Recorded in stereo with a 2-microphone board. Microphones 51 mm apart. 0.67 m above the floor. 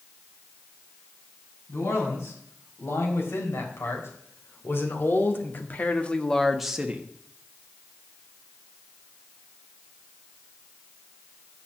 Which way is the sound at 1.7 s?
60° left (ahead or behind).